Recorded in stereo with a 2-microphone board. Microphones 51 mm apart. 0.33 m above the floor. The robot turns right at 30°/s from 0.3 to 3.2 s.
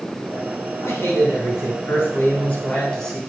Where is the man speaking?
95° left, 2.5 m; by 3.2 s 170° left, 2.5 m.